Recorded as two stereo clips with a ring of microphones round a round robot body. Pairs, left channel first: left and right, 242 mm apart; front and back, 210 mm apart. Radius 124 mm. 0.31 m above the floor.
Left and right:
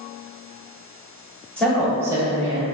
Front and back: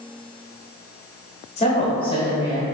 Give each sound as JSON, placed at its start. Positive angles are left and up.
{"t": 1.6, "sound": "a woman speaking", "azimuth_deg": 10, "distance_m": 1.2}